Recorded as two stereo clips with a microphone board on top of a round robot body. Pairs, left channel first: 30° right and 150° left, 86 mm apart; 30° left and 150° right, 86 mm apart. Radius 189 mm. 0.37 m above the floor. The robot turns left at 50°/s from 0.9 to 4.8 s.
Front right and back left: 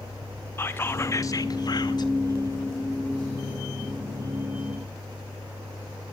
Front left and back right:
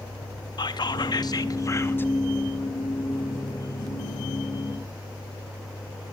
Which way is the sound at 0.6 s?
25° left.